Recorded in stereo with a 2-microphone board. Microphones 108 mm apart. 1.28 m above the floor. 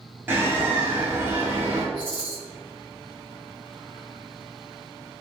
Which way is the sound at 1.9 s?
40° left (ahead or behind).